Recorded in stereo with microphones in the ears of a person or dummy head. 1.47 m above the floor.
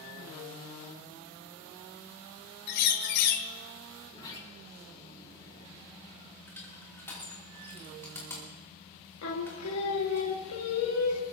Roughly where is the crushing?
Centre.